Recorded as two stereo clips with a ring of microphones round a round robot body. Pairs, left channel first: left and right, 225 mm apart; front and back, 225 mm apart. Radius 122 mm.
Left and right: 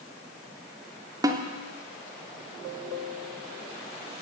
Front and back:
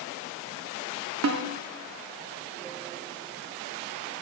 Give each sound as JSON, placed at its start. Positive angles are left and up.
{"t": 1.2, "sound": "a snare drum", "azimuth_deg": -165, "distance_m": 0.7}